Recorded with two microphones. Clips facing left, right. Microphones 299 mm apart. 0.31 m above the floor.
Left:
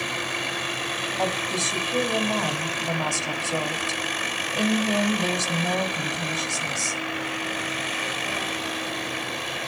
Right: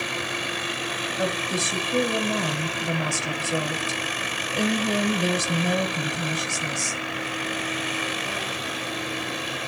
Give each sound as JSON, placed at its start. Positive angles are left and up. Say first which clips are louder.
{"t": 1.2, "sound": "a woman speaking", "louder": "right 1 dB", "side_deg": -20, "distance_m": 1.6}